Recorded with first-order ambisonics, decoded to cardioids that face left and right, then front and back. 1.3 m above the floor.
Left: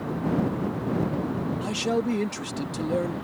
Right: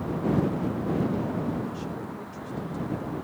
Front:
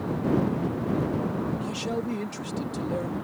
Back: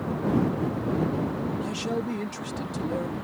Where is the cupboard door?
I don't hear a cupboard door.